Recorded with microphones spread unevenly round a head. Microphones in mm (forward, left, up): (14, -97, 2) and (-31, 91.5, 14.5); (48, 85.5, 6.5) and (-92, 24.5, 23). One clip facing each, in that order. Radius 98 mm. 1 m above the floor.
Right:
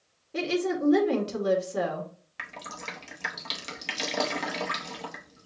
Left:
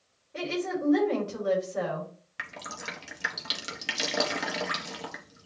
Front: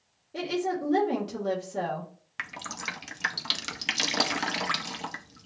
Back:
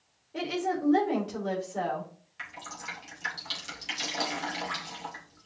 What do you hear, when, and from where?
0.3 s a woman speaking: 35° right, 1.7 m
2.4 s dripping: 20° left, 0.5 m